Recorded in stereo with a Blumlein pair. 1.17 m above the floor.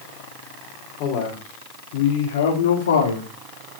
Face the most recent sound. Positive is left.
turn(degrees=75)